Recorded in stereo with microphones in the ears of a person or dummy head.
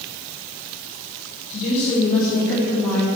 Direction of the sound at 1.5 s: 45° left (ahead or behind).